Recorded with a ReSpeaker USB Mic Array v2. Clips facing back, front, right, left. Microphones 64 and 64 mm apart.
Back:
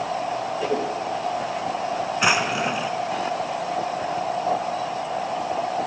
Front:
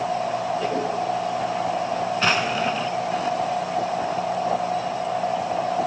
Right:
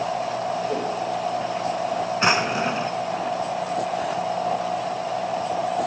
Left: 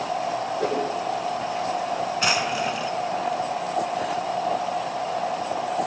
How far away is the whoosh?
About 7.5 m.